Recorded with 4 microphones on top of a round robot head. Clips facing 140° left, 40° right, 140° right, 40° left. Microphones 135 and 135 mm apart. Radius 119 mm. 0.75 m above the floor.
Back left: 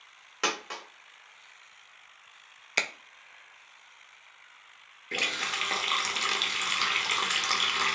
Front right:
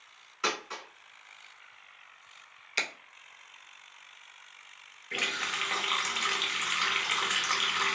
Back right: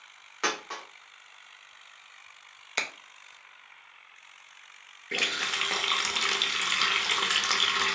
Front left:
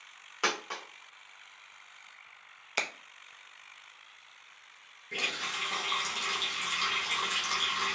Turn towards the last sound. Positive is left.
turn(degrees=-160)